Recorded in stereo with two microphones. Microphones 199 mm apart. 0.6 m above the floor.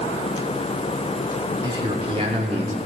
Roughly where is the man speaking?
Right.